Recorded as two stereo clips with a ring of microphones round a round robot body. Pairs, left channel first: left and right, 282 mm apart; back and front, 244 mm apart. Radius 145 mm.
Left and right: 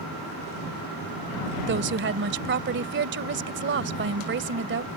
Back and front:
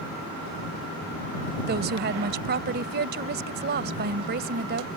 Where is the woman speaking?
45° right.